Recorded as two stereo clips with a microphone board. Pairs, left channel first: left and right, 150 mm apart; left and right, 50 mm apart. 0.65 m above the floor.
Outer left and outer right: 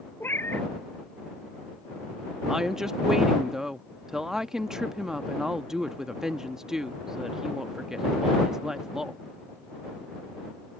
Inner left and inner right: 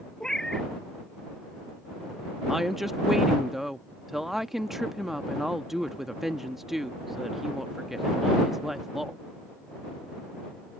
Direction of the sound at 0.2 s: 15° left (ahead or behind).